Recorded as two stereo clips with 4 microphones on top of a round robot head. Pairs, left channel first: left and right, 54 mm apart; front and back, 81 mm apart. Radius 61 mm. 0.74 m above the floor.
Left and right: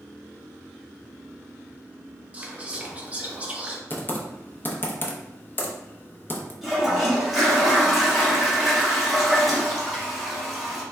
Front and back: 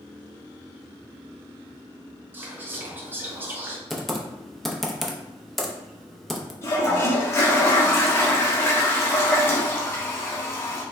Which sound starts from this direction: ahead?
A toilet flushing, at 6.6 s.